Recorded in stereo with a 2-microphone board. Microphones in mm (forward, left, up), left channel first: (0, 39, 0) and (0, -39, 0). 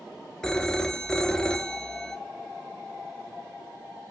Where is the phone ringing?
10° left (ahead or behind), 0.9 m.